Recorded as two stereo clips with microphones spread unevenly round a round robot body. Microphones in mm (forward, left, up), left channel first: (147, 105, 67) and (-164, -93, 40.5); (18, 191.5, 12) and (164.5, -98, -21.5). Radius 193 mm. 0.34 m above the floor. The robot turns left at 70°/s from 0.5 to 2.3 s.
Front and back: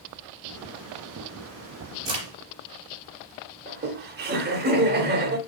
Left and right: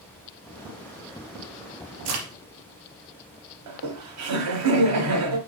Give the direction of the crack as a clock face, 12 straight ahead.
2 o'clock.